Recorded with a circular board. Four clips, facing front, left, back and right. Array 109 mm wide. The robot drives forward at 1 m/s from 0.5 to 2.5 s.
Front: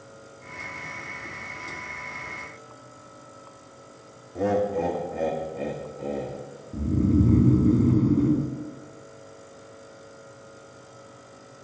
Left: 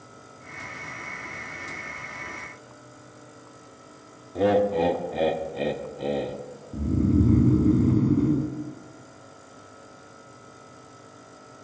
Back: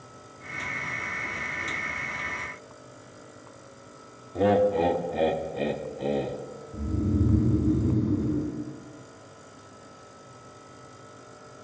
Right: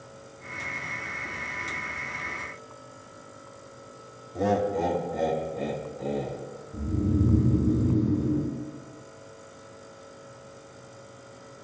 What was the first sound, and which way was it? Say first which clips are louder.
Laughter: left 4 dB, back 3 dB; 115° left.